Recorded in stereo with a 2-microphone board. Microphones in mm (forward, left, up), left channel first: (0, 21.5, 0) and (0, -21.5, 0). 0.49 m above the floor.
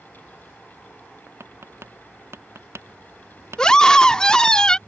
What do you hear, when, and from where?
1.4 s tapping: 85° right
3.6 s a scream: 20° left (ahead or behind)